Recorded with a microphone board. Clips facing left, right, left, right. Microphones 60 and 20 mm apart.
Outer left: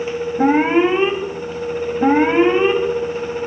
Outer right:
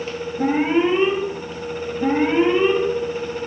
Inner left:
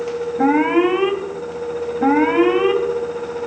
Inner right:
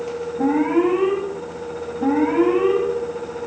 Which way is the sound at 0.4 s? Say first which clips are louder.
Outer left 4 dB, inner left 3 dB; 70° left (ahead or behind).